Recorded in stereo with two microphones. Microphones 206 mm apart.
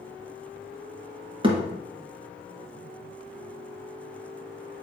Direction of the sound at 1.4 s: 25° right (ahead or behind).